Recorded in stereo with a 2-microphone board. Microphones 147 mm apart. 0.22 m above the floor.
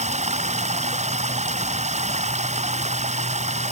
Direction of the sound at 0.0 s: 50° right (ahead or behind).